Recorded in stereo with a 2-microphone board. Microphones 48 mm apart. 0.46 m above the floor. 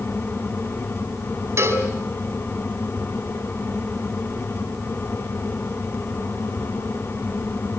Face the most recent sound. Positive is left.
turn(degrees=-60)  # may be behind; listen again after turning